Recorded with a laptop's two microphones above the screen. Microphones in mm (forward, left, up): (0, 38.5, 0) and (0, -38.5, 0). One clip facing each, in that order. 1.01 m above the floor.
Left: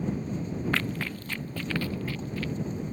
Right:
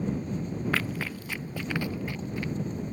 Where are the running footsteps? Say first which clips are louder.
Even; 5° right (ahead or behind); by 2.5 s 20° right (ahead or behind).